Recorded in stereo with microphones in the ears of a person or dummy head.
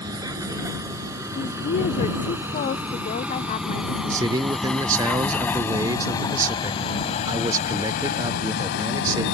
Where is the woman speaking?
40° left (ahead or behind).